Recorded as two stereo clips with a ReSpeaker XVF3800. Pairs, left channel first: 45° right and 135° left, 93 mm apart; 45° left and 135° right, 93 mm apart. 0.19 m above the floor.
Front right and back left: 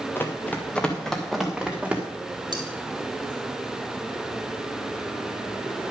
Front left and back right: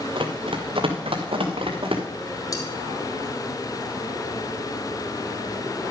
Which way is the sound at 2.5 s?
95° left.